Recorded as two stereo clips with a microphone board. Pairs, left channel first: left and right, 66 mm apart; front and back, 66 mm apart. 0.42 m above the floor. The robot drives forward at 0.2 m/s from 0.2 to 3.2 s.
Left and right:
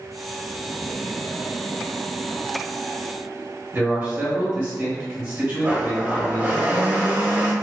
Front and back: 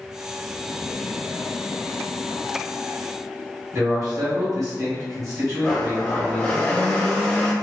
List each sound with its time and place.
3.7 s a man speaking: 150° right, 1.6 m
5.6 s a blender: 55° right, 0.7 m